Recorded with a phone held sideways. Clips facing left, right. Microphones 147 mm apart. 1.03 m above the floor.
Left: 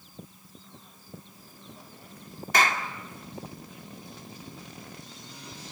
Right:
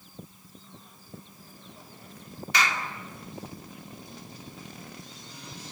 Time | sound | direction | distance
2.5 | a clap | 50° left (ahead or behind) | 1.9 m